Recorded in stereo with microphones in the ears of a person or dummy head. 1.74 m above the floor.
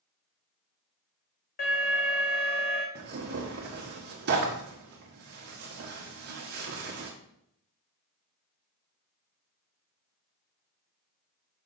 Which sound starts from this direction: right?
Tearing paper, at 3.0 s.